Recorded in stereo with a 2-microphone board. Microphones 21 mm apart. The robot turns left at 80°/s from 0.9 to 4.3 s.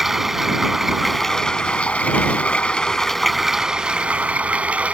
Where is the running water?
165° right; by 4.9 s 80° right.